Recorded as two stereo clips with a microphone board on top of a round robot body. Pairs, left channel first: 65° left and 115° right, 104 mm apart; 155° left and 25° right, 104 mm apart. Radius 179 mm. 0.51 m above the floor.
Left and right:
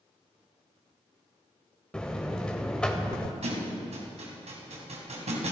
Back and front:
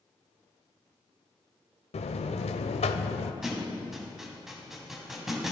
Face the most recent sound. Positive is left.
turn(degrees=-110)